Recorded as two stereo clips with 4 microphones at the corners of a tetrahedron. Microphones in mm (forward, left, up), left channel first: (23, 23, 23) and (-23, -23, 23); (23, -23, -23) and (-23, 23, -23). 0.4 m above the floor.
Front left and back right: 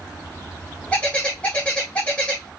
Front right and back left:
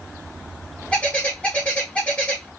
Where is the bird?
5° right, 1.5 m.